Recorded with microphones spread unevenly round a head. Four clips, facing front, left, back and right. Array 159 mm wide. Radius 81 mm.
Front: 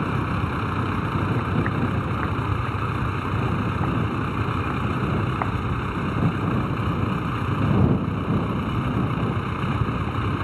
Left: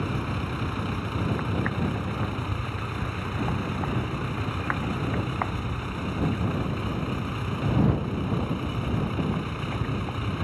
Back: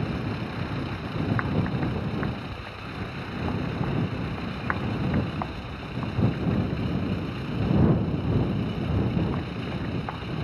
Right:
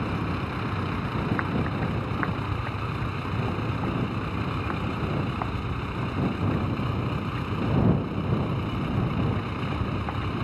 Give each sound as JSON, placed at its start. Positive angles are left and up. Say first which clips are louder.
{"t": 0.0, "sound": "a vehicle", "louder": "right 1 dB, front 5 dB", "azimuth_deg": -5}